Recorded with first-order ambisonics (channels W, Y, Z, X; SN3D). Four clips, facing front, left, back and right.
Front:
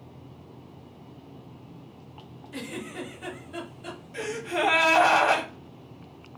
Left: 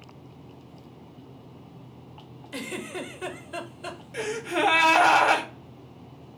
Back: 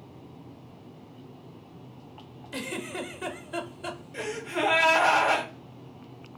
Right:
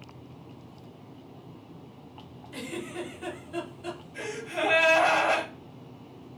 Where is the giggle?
135° left, 0.8 m.